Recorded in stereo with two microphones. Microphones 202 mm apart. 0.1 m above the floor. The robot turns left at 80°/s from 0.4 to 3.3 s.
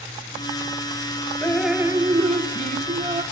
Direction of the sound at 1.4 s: 15° left.